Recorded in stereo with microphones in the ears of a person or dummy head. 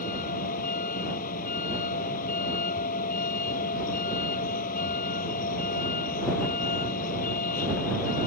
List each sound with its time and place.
0.0 s a vehicle: 45° left (ahead or behind)